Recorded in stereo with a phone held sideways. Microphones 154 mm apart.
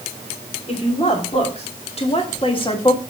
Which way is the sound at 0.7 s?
45° left (ahead or behind).